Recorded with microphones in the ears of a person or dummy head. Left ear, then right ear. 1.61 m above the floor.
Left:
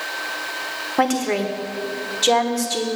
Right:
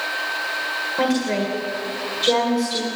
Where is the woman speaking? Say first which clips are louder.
Left 4 dB; 40° left (ahead or behind), 1.4 m.